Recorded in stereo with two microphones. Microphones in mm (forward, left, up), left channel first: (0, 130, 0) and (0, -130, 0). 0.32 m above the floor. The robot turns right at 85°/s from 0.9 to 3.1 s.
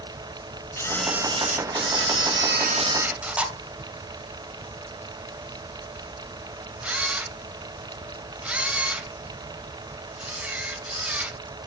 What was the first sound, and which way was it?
A camera shutter, 10° left (ahead or behind).